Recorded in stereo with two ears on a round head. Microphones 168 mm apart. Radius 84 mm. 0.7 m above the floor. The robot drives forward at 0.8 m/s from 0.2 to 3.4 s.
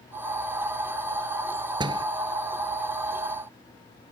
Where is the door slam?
25° right (ahead or behind).